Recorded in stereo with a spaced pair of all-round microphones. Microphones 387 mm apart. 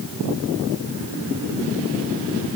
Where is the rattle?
No rattle in this recording.